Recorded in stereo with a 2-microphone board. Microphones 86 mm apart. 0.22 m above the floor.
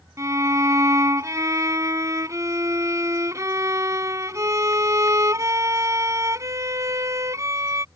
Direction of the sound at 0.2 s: 40° right (ahead or behind).